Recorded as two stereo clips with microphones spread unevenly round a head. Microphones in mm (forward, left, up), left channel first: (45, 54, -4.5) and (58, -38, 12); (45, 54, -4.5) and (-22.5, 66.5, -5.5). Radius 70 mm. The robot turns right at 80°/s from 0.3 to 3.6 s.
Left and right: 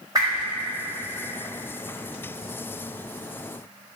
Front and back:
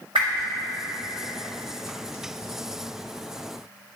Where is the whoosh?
150° right, 1.6 m; by 0.5 s 135° right, 1.6 m.